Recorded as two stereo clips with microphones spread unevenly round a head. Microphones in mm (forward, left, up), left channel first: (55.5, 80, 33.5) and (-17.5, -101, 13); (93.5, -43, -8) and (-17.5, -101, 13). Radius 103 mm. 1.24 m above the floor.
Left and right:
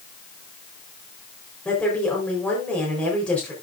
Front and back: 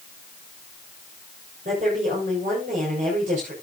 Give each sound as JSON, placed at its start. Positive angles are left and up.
{"t": 1.6, "sound": "a woman speaking", "azimuth_deg": 155, "distance_m": 4.5}